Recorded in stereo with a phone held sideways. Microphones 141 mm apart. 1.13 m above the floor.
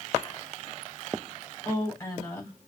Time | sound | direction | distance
1.6 | a woman speaking | 20° left (ahead or behind) | 3.5 m